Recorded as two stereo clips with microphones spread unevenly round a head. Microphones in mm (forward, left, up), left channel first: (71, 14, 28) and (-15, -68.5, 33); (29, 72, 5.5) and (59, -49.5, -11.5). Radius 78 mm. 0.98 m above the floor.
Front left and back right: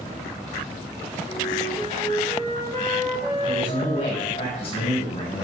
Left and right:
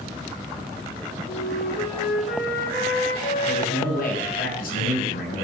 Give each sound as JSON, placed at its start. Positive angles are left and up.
{"t": 1.3, "sound": "a flute", "azimuth_deg": 110, "distance_m": 1.9}
{"t": 3.4, "sound": "a man speaking", "azimuth_deg": 100, "distance_m": 6.5}